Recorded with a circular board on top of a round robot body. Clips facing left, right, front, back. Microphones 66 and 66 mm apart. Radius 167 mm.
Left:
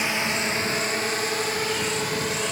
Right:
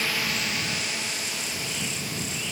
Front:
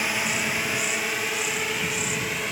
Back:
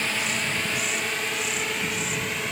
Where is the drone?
65° left; by 2.5 s 90° left.